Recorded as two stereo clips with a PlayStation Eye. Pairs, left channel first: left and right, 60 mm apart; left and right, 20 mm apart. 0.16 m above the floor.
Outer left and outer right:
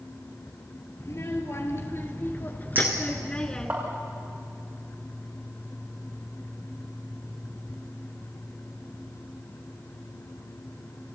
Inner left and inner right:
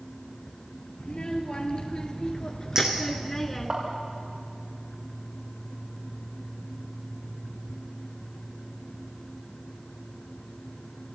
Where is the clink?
35° right (ahead or behind), 6.5 m.